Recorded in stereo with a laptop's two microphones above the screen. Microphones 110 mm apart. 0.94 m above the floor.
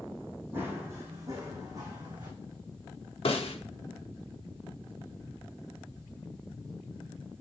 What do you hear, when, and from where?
0.5 s running footsteps: 20° right (ahead or behind), 3.5 m; by 2.3 s 45° right (ahead or behind), 4 m
3.2 s a snare drum: 60° left (ahead or behind), 1.1 m